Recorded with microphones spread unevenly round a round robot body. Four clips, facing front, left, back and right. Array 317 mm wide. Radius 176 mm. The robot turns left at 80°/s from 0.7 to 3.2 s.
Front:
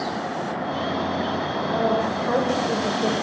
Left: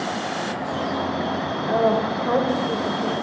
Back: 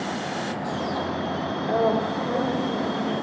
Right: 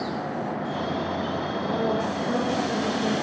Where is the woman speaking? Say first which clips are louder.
Left 7 dB, back 1 dB; 115° left, 1.8 m; by 3.1 s straight ahead, 1.8 m.